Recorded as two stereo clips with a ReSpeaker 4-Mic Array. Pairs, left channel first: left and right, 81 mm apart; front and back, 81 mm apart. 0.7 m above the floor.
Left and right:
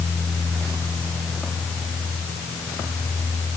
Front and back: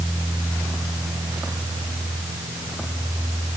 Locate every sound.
Only background noise.